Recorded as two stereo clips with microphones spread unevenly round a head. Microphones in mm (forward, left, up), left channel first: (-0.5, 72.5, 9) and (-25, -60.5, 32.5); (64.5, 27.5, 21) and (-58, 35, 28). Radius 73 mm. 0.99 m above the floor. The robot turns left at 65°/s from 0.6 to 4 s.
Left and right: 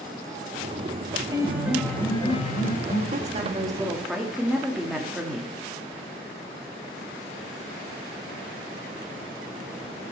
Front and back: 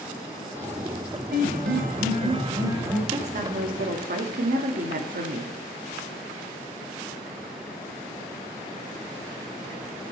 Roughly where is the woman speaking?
Behind right.